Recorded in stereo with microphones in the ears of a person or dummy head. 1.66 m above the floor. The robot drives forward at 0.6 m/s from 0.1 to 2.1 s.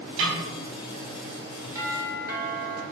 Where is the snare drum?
65° right (ahead or behind), 4.5 m; by 0.4 s 70° right (ahead or behind), 4.5 m.